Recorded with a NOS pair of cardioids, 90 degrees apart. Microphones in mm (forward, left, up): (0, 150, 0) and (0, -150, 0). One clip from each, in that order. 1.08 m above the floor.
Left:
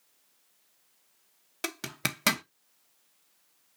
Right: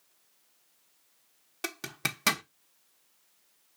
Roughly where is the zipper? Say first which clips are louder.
Left 1 dB; ahead.